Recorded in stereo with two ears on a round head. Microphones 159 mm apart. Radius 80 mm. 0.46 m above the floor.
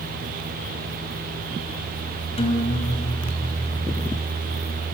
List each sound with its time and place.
2.4 s a guitar: 35° left (ahead or behind), 2 m